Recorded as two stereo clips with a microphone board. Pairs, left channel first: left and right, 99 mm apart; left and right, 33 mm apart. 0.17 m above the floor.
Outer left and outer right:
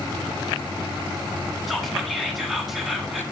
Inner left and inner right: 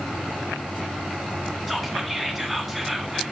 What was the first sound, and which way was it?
Whispering, centre (ahead or behind).